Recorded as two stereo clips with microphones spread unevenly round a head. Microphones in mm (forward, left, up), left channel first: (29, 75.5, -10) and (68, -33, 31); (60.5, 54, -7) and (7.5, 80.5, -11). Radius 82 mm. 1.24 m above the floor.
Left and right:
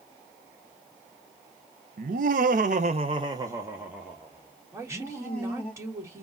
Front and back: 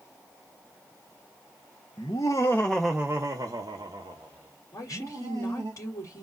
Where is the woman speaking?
5° right, 1.9 m.